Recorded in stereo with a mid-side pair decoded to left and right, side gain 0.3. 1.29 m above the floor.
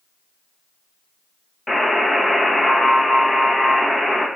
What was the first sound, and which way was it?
A buzzer, 25° left.